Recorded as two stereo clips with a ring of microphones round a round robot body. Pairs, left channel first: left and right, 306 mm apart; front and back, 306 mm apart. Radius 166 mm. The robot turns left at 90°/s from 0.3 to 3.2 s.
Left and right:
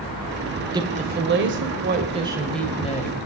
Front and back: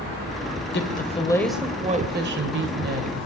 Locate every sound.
0.7 s a woman speaking: 20° right, 1.7 m; by 3.2 s 120° left, 1.7 m